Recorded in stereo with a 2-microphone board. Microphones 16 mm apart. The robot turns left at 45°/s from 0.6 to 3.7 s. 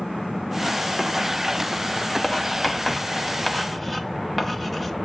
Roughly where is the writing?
Left.